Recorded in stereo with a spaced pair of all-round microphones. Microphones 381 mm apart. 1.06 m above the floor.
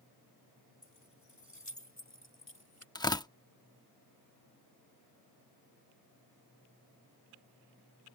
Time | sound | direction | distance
0.8 | keys jangling | 50° left (ahead or behind) | ?
3.0 | tearing paper | 10° left (ahead or behind) | ?